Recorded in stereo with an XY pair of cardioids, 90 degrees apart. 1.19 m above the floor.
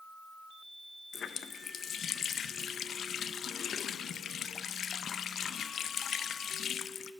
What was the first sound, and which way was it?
A running tap, 65° left.